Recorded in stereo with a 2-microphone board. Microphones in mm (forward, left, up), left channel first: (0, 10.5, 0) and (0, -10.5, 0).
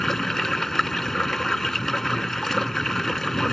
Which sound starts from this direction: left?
Running water, at 0.0 s.